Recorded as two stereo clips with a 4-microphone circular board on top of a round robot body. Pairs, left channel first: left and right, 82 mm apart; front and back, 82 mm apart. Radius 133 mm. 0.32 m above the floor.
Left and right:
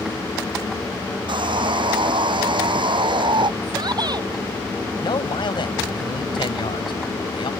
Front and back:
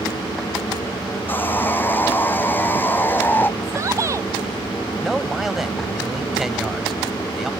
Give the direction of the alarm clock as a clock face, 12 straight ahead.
I don't hear an alarm clock.